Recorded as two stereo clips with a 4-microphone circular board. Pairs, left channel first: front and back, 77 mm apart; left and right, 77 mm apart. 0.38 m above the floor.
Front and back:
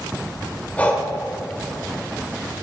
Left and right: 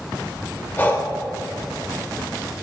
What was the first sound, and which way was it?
Breathing, 50° left.